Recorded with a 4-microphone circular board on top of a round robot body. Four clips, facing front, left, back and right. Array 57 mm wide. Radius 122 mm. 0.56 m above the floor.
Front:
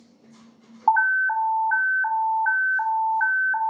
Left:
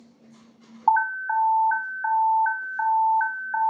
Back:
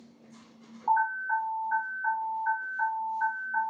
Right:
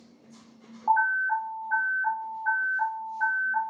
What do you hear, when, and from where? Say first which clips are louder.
0.9 s an alarm: left 2 dB, front 7 dB; 35° left, 0.9 m